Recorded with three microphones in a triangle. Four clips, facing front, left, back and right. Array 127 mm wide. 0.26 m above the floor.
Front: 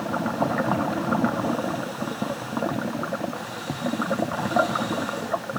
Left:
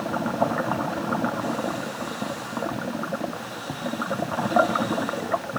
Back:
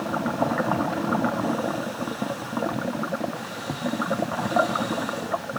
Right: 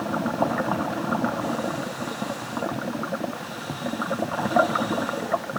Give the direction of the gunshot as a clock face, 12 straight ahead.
I don't hear a gunshot.